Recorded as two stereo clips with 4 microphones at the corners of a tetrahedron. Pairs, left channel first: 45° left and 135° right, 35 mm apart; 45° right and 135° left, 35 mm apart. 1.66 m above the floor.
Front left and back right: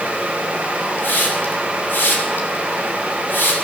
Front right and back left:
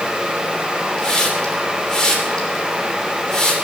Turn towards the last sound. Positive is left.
turn(degrees=30)